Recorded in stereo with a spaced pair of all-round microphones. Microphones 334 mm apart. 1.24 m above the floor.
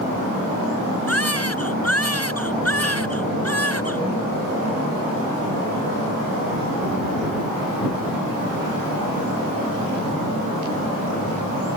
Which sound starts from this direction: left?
A baby crying, at 1.1 s.